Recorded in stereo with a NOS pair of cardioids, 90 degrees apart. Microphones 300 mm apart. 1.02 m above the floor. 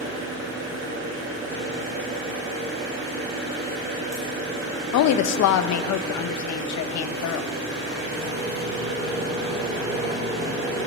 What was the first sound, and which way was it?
An engine running, 45° right.